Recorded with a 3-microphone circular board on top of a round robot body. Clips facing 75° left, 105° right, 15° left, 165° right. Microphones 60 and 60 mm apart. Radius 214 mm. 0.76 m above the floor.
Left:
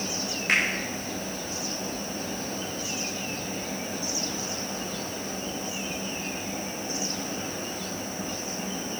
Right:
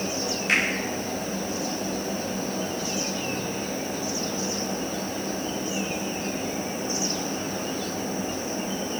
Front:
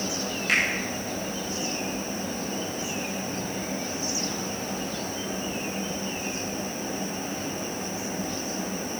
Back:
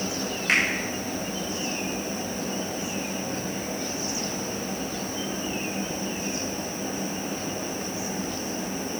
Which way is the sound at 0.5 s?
135° left.